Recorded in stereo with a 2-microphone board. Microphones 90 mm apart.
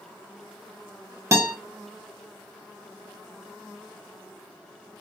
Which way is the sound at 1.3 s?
35° right (ahead or behind).